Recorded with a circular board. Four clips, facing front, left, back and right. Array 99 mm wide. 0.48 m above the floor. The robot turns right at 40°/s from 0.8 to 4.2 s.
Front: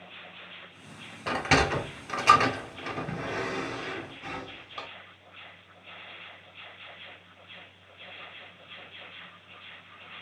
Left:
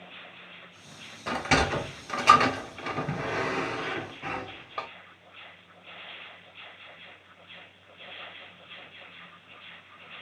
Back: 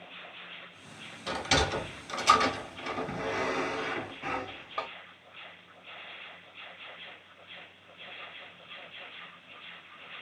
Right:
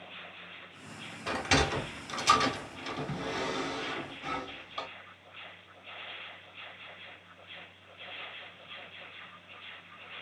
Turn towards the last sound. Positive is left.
turn(degrees=125)